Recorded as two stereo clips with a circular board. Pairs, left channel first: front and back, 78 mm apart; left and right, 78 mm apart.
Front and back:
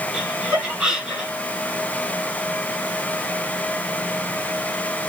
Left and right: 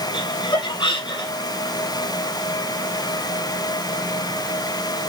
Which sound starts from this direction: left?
Laughter, at 0.1 s.